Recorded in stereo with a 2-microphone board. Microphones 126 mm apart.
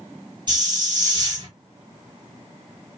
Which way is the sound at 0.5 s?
35° right (ahead or behind).